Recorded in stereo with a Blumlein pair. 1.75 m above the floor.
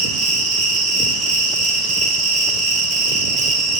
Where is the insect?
30° right, 2.5 m.